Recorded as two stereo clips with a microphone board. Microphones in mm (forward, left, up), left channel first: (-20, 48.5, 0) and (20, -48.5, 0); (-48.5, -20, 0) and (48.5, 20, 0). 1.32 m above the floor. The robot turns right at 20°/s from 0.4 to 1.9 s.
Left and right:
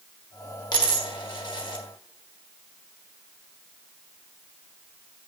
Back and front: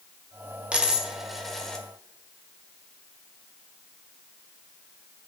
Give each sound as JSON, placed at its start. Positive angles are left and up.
{"t": 0.7, "sound": "a dropped coin", "azimuth_deg": 95, "distance_m": 1.3}